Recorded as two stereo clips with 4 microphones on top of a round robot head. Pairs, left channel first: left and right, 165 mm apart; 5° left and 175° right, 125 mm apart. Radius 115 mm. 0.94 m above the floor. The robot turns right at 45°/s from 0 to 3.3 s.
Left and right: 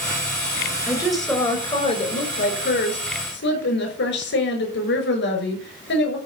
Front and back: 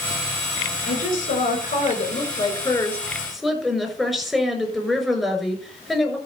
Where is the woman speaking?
10° right, 6 m; by 6.2 s 100° left, 6 m.